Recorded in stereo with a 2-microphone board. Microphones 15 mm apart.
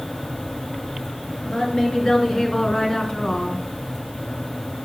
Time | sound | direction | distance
1.4 | a woman speaking | 50° left (ahead or behind) | 3 m